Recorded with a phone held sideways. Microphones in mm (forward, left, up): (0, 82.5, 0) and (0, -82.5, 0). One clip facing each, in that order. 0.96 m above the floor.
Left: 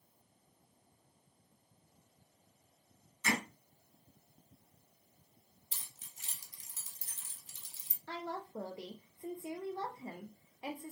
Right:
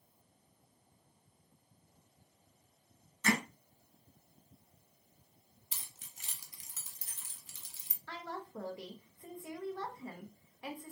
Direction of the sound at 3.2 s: 60° right (ahead or behind).